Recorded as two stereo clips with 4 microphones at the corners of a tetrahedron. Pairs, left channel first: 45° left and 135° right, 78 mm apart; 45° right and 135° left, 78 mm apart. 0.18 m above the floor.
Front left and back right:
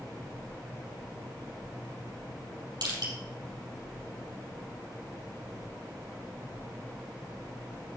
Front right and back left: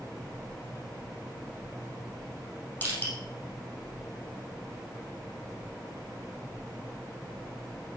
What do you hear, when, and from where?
2.8 s crushing: 110° right, 5 m